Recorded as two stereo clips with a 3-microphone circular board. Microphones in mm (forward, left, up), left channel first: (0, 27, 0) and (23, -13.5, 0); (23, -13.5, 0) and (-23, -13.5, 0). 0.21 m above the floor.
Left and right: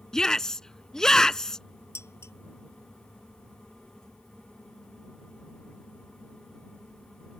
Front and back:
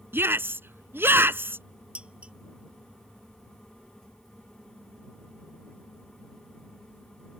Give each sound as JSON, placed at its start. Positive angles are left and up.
{"t": 0.1, "sound": "a shout", "azimuth_deg": -165}
{"t": 1.9, "sound": "dishes clattering", "azimuth_deg": 115}